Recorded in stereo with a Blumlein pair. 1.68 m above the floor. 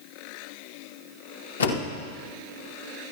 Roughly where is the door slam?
Left.